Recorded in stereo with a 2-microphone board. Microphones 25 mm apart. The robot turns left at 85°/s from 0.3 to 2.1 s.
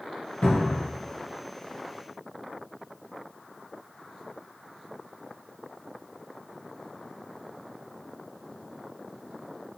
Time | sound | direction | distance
0.4 | a cupboard door | 60° left | 1.7 m